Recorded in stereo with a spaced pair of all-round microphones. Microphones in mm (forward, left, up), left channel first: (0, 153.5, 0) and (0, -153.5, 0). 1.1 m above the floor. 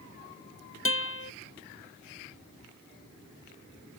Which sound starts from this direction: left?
A guitar, at 0.8 s.